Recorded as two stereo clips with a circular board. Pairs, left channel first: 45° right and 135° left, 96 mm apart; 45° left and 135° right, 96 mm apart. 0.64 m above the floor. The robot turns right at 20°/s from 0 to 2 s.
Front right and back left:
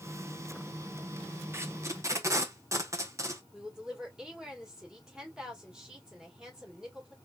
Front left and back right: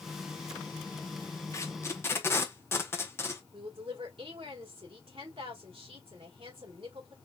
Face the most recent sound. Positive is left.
turn(degrees=-145)